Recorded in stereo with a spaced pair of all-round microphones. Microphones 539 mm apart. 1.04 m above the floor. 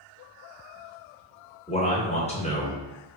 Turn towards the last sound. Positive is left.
turn(degrees=10)  # may be behind; listen again after turning